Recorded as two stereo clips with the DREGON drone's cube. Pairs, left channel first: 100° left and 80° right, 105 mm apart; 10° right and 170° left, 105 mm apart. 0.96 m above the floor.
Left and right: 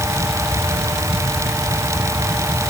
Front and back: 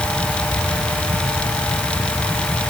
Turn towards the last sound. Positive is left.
No sound to turn to.